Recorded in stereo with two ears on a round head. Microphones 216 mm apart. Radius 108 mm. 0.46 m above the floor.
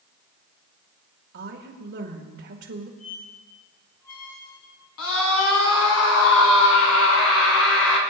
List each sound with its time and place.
1.3 s a woman speaking: 50° right (ahead or behind), 1.8 m
3.0 s a squeak: 70° left (ahead or behind), 5.5 m
5.0 s a scream: 60° left (ahead or behind), 3.5 m